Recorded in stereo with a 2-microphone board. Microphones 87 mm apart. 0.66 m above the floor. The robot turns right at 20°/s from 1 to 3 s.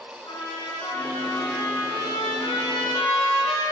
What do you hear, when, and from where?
0.2 s a trumpet: 55° left, 4.5 m; by 3.6 s 95° left, 4.5 m